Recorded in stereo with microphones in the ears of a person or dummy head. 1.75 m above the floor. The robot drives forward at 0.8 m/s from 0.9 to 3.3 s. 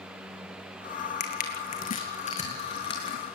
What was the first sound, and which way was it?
Crushing, 45° left (ahead or behind).